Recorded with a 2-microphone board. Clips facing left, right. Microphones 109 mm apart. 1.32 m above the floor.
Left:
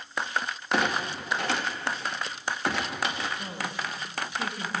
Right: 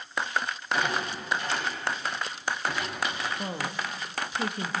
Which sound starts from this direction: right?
A woman speaking, at 3.4 s.